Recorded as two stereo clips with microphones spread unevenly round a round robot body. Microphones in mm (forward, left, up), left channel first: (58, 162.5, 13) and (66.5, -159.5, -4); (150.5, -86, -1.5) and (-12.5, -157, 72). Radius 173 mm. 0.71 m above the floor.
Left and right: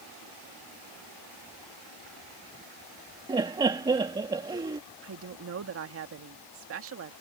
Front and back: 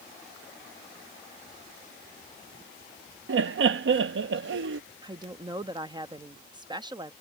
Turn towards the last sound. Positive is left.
turn(degrees=-75)